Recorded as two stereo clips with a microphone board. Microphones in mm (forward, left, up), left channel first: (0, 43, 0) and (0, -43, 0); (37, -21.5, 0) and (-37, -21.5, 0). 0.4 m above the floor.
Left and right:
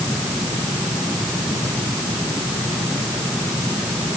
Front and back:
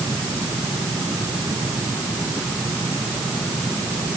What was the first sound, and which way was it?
Only background noise.